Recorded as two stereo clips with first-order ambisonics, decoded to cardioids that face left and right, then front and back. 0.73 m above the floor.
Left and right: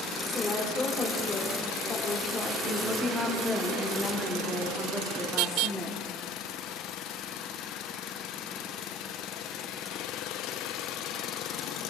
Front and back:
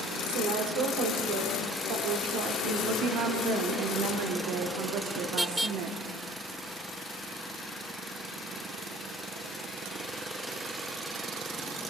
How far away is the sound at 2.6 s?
About 1.5 m.